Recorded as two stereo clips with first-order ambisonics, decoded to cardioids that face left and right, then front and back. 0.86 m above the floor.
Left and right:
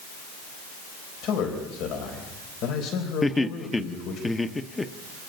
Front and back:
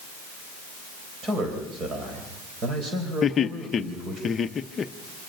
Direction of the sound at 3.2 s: 25° left.